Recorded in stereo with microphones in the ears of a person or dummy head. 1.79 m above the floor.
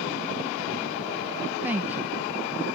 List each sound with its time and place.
1.6 s a woman speaking: 10° right (ahead or behind)